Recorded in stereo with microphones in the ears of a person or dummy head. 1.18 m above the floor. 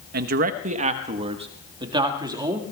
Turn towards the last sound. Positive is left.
turn(degrees=-25)  # may be behind; listen again after turning